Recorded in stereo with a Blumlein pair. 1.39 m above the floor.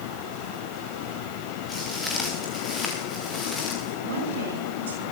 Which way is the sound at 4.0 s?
65° right.